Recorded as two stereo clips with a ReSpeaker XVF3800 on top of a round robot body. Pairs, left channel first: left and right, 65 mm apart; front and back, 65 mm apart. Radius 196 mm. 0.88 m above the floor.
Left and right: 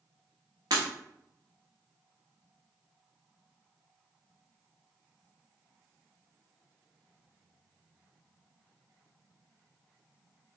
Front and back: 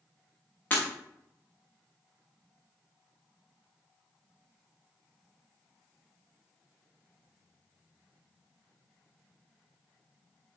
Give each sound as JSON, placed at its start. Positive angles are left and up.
{"t": 0.7, "sound": "breaking glass", "azimuth_deg": -65, "distance_m": 0.8}